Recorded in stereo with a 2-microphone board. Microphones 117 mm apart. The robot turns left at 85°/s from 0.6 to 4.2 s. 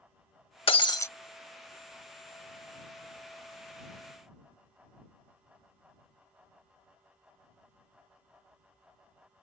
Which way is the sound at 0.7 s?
60° left.